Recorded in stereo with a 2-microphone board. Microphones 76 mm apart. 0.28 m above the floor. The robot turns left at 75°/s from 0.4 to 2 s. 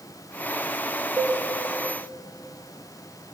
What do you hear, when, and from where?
1.2 s a cowbell: 25° right (ahead or behind), 1.6 m; by 1.4 s 40° right (ahead or behind), 1.6 m